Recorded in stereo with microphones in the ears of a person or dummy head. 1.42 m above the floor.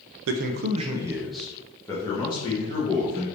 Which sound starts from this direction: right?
A man speaking, at 0.3 s.